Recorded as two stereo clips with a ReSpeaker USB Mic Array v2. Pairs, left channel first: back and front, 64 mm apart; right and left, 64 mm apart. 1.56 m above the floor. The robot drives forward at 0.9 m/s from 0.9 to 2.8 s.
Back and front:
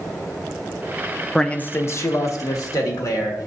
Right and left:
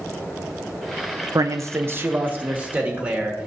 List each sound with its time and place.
1.4 s a man speaking: 100° left, 0.5 m; by 3.5 s 160° left, 1.5 m